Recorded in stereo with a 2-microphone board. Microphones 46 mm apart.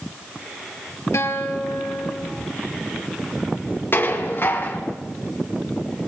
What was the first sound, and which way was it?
A guitar, 80° left.